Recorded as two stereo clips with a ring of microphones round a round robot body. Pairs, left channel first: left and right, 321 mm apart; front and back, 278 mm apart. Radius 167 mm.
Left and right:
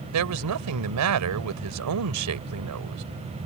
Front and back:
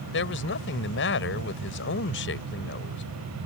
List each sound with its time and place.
0.1 s a woman speaking: 55° right